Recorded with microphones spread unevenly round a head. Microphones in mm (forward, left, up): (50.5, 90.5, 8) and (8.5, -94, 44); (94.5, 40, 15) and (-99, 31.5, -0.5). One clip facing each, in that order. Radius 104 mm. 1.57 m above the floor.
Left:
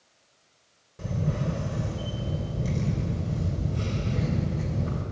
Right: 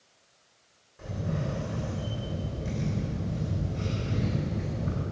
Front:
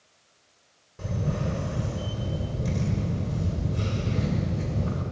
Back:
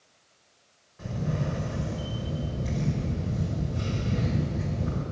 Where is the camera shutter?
25° left, 2.5 m.